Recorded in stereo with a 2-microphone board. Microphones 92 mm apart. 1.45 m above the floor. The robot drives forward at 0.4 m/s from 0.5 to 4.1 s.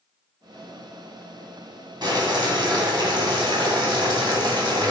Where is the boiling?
50° right (ahead or behind), 2.5 m; by 4.9 s 55° right (ahead or behind), 2 m.